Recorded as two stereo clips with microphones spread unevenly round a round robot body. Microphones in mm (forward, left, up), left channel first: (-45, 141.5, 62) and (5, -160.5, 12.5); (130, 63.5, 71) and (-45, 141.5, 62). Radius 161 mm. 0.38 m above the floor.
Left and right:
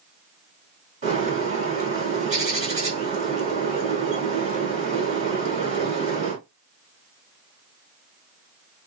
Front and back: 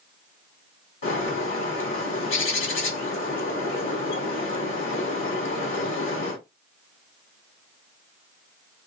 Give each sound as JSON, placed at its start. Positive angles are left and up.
{"t": 1.0, "sound": "a bird", "azimuth_deg": -15, "distance_m": 2.5}